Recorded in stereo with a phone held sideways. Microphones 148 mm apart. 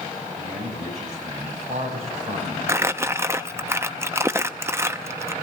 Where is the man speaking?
50° right (ahead or behind), 6.5 m.